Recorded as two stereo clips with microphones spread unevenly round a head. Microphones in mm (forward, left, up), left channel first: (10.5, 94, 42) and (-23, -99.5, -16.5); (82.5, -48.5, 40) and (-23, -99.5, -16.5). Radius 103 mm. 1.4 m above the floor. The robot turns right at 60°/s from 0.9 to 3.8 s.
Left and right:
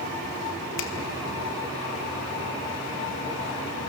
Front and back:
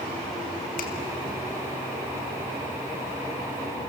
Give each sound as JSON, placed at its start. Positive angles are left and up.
{"t": 0.8, "sound": "a finger snap", "azimuth_deg": 50, "distance_m": 2.0}